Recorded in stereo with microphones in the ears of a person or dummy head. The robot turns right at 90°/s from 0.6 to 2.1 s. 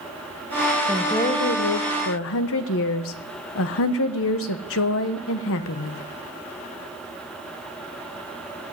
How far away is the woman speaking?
About 1.1 m.